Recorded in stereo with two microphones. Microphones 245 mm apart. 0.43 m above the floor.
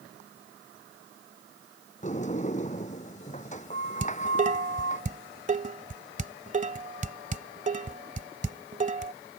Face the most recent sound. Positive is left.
turn(degrees=-30)  # may be behind; listen again after turning